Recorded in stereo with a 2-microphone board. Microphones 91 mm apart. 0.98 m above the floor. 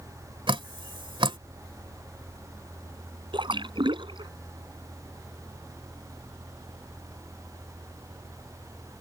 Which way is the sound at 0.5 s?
75° right (ahead or behind).